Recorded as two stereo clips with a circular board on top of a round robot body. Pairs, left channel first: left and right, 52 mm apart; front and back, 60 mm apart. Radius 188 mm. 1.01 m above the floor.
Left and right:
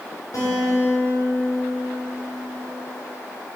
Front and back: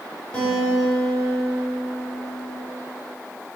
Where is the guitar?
80° left, 3.5 m.